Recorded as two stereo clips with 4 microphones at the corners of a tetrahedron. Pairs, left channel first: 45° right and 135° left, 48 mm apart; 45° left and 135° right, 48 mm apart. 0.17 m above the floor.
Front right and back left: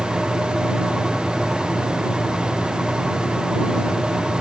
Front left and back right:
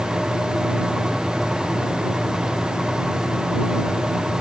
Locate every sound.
Only background noise.